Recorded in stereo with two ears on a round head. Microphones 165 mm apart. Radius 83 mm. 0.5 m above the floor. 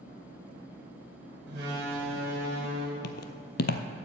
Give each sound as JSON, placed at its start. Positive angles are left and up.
{"t": 1.5, "sound": "a door slam", "side_deg": -55, "distance_m": 5.0}
{"t": 3.0, "sound": "footsteps", "side_deg": 60, "distance_m": 0.8}